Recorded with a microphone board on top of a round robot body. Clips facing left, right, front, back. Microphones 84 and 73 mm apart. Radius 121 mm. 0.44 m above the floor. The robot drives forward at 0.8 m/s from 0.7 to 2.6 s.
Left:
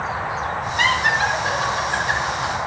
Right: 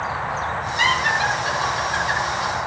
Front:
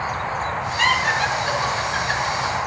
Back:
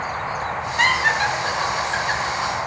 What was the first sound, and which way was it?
Laughter, 140° left.